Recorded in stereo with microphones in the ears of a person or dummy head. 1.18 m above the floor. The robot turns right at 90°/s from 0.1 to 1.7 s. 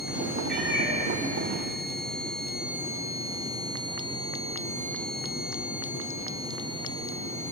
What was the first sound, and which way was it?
A cat meowing, straight behind.